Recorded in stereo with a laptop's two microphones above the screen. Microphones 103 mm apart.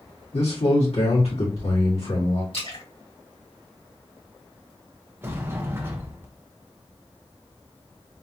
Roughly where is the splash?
Left.